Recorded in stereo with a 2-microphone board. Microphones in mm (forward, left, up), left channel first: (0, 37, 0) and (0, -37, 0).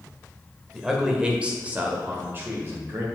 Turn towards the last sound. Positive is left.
turn(degrees=-35)  # may be behind; listen again after turning